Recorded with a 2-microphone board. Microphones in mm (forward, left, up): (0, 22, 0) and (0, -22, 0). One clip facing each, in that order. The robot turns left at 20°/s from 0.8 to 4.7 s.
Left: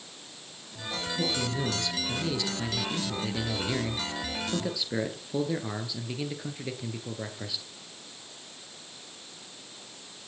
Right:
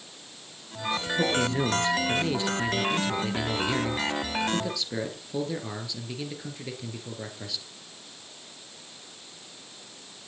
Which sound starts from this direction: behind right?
A man speaking, at 1.2 s.